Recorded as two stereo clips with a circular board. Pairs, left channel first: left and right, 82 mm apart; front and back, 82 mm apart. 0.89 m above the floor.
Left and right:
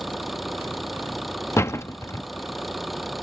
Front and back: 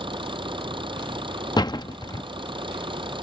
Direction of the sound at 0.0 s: Straight behind.